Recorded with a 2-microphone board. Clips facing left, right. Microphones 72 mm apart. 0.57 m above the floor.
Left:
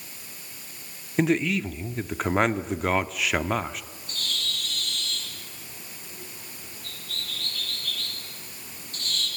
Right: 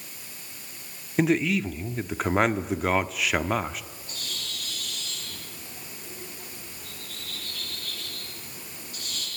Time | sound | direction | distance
1.2 | a man speaking | centre (ahead or behind) | 0.9 m
4.1 | a bird | 10° right (ahead or behind) | 9.5 m